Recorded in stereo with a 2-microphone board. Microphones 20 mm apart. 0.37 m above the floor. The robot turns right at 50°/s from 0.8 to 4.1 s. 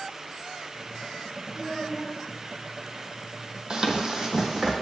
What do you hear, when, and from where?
1.5 s a child speaking: 155° left, 0.9 m; by 2.2 s 175° right, 0.9 m
3.7 s running footsteps: 45° right (ahead or behind), 0.5 m; by 4.7 s 35° right (ahead or behind), 1.0 m